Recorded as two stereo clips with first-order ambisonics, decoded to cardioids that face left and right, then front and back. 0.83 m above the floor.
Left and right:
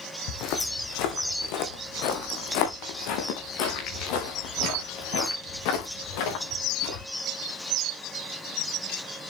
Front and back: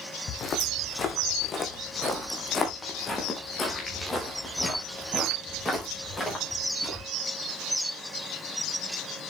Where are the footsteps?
60° left, 2.5 m; by 7.0 s 80° left, 6.5 m.